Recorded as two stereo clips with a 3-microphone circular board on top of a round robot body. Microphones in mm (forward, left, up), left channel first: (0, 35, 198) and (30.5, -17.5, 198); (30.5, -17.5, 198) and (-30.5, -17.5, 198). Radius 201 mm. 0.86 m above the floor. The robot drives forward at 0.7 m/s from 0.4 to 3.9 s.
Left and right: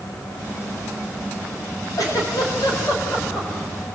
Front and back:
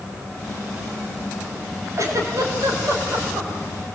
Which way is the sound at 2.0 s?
145° left.